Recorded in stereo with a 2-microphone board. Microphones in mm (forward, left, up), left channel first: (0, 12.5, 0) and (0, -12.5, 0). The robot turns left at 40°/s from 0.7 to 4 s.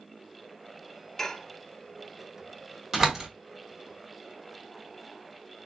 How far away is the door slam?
About 1.6 m.